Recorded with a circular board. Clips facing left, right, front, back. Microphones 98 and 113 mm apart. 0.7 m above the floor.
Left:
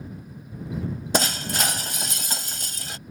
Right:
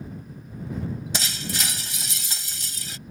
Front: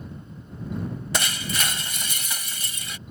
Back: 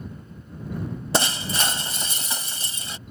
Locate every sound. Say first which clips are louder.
1.1 s breaking glass: left 7 dB, back 6 dB; 125° left